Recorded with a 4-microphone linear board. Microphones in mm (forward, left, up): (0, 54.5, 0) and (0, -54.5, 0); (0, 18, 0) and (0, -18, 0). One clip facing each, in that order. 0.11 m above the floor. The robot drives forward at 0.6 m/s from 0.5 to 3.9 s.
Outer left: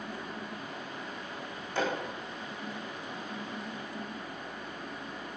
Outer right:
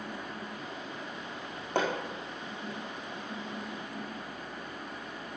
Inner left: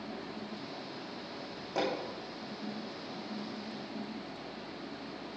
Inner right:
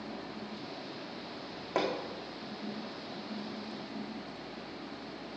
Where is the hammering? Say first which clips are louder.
Outer right 2 dB, inner right 1 dB; 60° right (ahead or behind), 4.5 m.